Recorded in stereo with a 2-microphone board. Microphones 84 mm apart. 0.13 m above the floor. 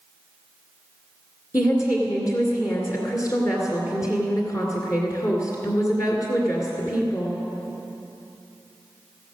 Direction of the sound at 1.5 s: 40° left (ahead or behind).